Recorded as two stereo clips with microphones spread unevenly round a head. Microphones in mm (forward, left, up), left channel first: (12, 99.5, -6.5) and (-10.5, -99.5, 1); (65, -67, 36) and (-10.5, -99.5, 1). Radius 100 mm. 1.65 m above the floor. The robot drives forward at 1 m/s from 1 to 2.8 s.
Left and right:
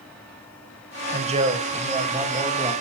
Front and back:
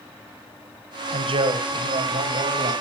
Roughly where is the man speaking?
Behind right.